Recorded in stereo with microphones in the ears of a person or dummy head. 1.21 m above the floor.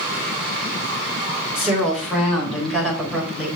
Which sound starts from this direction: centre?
A woman speaking, at 1.6 s.